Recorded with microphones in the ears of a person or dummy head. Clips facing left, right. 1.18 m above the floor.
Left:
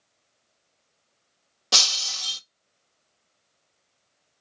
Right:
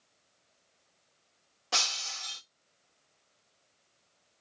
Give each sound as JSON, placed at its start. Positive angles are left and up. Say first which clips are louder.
{"t": 1.7, "sound": "breaking glass", "louder": "left 4 dB", "side_deg": 50, "distance_m": 0.8}